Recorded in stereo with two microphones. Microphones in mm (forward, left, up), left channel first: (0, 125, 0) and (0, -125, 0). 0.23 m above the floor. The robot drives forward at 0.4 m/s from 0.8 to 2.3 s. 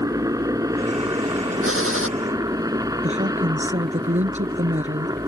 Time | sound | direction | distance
0.0 | a helicopter | 15° right (ahead or behind) | ?
1.6 | a gunshot | 55° right (ahead or behind) | ?
3.0 | a woman speaking | 30° right (ahead or behind) | ?